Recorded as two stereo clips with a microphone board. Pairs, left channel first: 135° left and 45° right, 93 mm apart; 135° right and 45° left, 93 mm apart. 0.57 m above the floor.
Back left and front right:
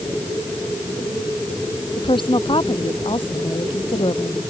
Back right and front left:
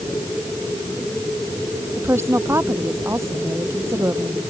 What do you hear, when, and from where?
2.0 s a woman speaking: 110° left